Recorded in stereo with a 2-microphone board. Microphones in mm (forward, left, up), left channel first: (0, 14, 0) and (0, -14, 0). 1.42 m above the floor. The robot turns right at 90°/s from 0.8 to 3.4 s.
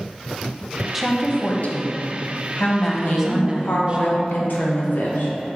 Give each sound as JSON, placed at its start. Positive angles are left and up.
{"t": 0.9, "sound": "a woman speaking", "azimuth_deg": -5, "distance_m": 0.9}
{"t": 3.0, "sound": "a woman speaking", "azimuth_deg": 50, "distance_m": 1.2}